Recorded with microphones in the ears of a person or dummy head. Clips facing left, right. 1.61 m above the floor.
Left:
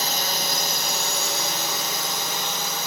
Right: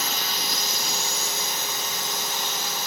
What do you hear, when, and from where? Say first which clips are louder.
0.0 s a drone: left 3 dB; 40° left (ahead or behind); by 2.9 s 70° left (ahead or behind)